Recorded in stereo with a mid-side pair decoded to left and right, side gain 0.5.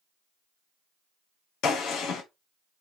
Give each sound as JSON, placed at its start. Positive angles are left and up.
{"t": 1.6, "sound": "a gunshot", "azimuth_deg": 70, "distance_m": 1.2}